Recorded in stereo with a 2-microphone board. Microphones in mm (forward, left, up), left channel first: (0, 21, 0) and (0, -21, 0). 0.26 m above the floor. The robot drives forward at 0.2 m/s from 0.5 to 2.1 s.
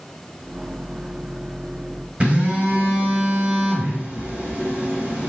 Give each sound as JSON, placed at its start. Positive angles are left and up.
{"t": 2.2, "sound": "a phone buzzing", "side_deg": -30, "distance_m": 1.6}